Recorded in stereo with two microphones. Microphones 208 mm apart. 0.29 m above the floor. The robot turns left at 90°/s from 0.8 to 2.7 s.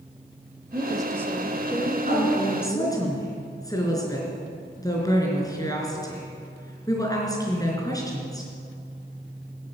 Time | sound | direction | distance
0.7 | a woman speaking | 25° right (ahead or behind) | 1.0 m
2.1 | a woman speaking | 40° right (ahead or behind) | 3.5 m